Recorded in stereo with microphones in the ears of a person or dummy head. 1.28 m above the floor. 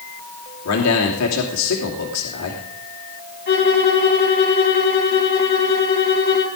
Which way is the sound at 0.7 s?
85° left.